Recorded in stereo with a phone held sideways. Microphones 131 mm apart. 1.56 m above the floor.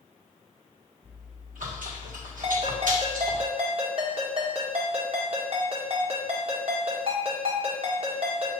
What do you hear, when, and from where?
1.0 s chewing: 75° right (ahead or behind), 1.6 m
2.4 s a ringtone: 45° right (ahead or behind), 1.4 m